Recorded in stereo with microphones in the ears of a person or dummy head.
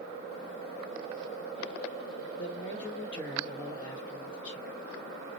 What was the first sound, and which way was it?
A man speaking, 30° left (ahead or behind).